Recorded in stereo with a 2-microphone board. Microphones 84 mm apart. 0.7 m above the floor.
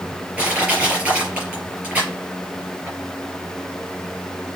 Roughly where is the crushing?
Centre.